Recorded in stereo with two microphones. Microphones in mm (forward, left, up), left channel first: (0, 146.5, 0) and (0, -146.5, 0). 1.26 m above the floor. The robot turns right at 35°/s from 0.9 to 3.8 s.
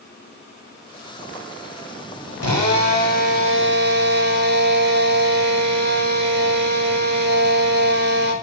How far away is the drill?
About 4 m.